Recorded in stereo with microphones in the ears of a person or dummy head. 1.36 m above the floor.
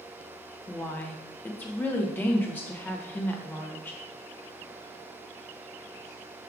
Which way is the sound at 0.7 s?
15° left (ahead or behind).